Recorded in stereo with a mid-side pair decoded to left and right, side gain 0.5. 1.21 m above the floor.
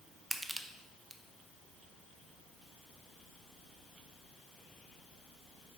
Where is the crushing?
10° right, 1.0 m.